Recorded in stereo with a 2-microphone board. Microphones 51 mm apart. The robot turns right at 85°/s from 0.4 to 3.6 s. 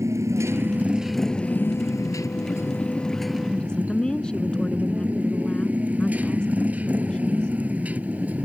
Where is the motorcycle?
65° right; by 8.5 s 150° right.